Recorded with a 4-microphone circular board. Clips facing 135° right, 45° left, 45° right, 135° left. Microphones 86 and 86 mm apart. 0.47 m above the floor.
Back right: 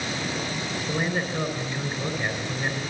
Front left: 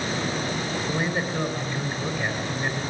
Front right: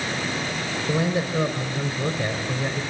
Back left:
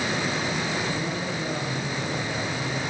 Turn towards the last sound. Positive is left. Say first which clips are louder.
# back right 1 dB, front right 5 dB
turn(degrees=-40)